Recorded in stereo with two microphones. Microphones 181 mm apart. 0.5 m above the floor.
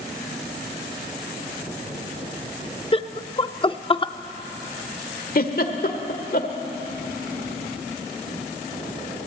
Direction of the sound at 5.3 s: 55° left (ahead or behind).